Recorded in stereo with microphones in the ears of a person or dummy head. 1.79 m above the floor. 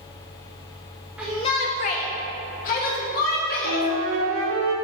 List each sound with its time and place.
1.2 s a shout: centre (ahead or behind), 0.8 m; by 3.9 s 50° left (ahead or behind), 3.5 m
3.6 s a flute: 75° right (ahead or behind), 2 m